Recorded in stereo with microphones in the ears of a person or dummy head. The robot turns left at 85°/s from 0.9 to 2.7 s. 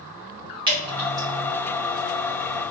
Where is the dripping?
30° right (ahead or behind), 1.1 m; by 1.3 s centre (ahead or behind), 1.1 m.